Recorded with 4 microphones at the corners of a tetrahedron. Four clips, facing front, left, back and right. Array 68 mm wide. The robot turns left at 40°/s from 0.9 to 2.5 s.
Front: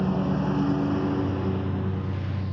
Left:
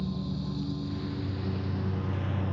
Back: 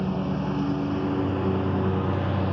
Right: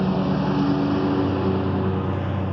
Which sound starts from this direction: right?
A lawn mower, at 0.0 s.